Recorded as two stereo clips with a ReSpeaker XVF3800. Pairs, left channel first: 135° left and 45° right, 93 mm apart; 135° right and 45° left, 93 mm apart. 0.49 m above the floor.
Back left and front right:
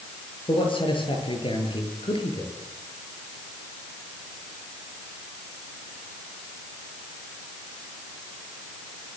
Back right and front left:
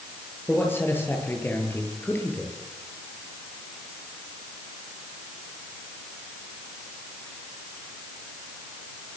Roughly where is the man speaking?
Behind.